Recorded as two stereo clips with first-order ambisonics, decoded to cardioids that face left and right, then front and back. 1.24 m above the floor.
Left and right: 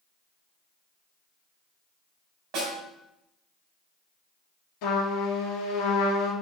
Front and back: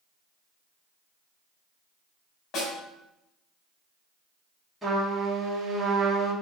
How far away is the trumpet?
About 1.9 m.